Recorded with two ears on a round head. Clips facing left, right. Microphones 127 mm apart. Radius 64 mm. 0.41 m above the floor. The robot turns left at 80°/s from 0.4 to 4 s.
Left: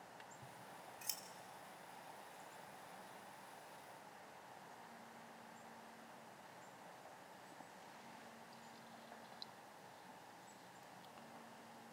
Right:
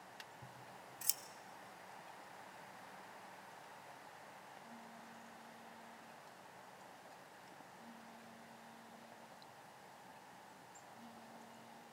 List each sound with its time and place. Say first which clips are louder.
0.4 s scissors: even; 10° right (ahead or behind), 0.9 m; by 1.2 s 40° right (ahead or behind), 0.9 m
2.7 s a phone buzzing: right 1 dB; 50° left (ahead or behind), 7.5 m; by 11.8 s 55° right (ahead or behind), 7.5 m